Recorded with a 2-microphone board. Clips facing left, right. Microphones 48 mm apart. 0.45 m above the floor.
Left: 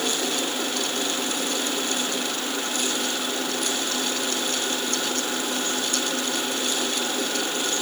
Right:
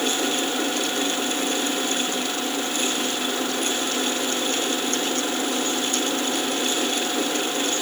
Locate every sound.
Only background noise.